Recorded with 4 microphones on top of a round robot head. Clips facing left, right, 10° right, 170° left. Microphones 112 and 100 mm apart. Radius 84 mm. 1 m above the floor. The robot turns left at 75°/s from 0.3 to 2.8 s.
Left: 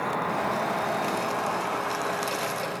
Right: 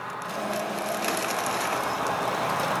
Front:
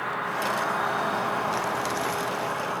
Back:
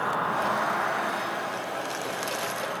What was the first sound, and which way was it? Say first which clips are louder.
An insect: left 5 dB, back 2 dB; 110° left.